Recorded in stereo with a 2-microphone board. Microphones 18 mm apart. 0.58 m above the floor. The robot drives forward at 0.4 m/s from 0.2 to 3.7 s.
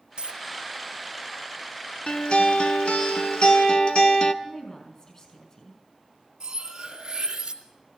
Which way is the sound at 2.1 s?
50° left (ahead or behind).